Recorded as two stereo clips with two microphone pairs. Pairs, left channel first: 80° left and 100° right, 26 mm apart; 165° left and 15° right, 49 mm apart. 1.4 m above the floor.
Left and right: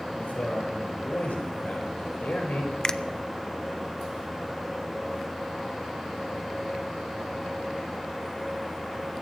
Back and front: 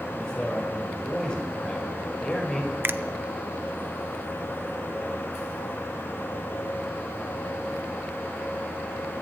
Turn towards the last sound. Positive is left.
turn(degrees=25)